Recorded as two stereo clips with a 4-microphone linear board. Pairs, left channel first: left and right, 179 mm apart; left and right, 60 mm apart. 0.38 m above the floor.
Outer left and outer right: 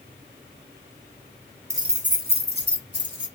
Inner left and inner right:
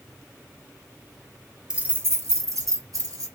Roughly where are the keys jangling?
Centre.